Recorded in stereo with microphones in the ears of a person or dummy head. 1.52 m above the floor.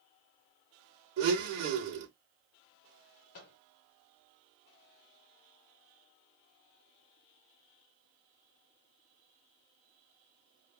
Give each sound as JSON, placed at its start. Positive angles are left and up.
{"t": 1.2, "sound": "a blender", "side_deg": -60, "distance_m": 2.5}
{"t": 3.3, "sound": "a microwave", "side_deg": 50, "distance_m": 0.9}